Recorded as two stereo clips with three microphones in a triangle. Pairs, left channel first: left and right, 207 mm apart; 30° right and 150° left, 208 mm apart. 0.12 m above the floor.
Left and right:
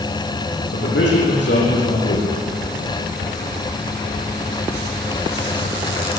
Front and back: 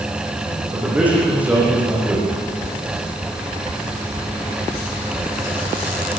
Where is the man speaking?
70° left, 8 m.